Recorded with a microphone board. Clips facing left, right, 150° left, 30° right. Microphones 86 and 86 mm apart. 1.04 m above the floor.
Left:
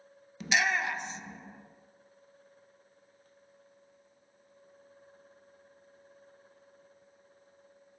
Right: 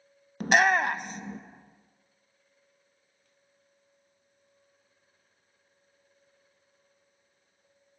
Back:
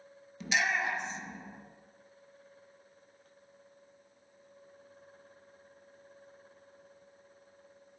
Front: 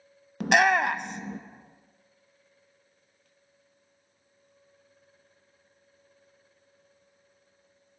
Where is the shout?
50° right, 0.5 m.